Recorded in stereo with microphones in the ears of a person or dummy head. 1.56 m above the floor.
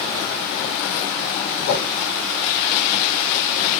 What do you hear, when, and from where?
1.6 s a whoosh: 50° left (ahead or behind), 0.8 m